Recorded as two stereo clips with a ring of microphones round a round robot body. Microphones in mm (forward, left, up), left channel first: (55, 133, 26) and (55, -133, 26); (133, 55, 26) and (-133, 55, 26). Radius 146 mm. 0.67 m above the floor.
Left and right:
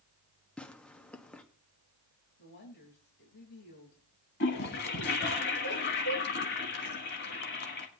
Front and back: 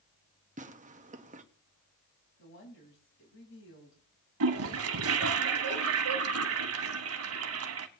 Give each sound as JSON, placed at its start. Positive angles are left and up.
{"t": 0.6, "sound": "tearing paper", "azimuth_deg": 170, "distance_m": 1.0}
{"t": 2.4, "sound": "a woman speaking", "azimuth_deg": 40, "distance_m": 4.5}
{"t": 4.4, "sound": "a toilet flushing", "azimuth_deg": 145, "distance_m": 1.2}